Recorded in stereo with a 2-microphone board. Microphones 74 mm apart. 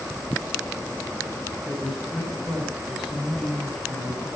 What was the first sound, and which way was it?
A man speaking, 5° right (ahead or behind).